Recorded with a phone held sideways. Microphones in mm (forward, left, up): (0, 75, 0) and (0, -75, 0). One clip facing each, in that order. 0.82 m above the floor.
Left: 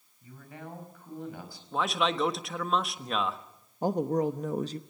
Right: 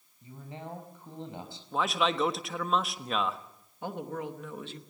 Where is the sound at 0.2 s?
25° right (ahead or behind), 4.5 m.